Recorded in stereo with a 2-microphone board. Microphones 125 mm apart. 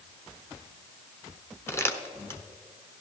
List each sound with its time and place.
1.7 s crumpling: 20° left (ahead or behind), 0.8 m